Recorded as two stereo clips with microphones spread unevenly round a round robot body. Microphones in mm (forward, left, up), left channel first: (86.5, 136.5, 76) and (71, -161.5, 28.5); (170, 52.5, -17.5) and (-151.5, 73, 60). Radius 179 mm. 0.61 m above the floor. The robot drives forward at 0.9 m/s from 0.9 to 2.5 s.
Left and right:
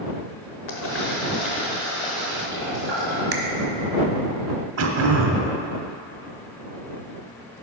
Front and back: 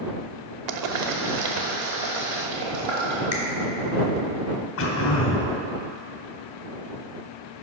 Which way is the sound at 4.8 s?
55° right.